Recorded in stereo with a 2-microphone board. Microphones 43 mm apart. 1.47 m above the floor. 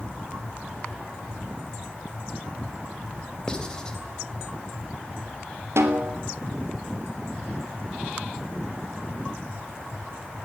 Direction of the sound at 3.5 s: 20° left (ahead or behind).